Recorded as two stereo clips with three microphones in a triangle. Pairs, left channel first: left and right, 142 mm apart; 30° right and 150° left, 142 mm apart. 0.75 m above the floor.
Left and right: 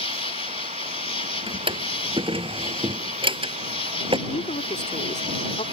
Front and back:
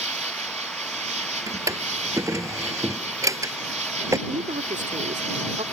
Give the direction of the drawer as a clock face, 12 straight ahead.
5 o'clock.